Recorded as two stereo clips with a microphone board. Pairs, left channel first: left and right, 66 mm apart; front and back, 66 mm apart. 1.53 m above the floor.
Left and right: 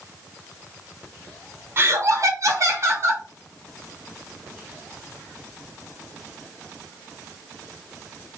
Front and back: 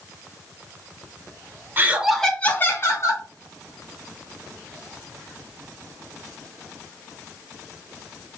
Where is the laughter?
130° right, 0.7 m; by 3.2 s 40° right, 1.3 m.